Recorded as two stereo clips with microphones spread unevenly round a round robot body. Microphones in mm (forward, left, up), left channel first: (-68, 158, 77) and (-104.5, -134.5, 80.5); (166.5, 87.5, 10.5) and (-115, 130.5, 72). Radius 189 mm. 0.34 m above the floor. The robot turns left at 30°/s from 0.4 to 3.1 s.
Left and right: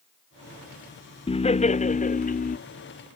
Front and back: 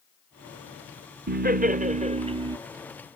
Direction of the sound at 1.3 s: 130° left.